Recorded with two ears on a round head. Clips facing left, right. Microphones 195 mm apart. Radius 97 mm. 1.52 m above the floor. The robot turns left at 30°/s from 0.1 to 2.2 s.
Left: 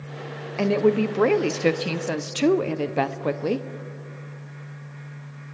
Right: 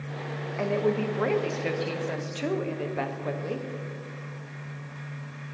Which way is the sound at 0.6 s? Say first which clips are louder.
Left 6 dB; 125° left.